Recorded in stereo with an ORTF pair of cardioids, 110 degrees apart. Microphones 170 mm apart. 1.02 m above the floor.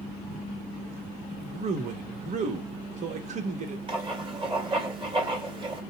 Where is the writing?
30° right, 2 m.